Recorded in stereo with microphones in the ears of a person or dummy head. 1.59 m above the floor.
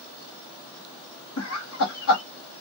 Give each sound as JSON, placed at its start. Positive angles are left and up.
{"t": 1.4, "sound": "laughter", "side_deg": 70, "distance_m": 1.1}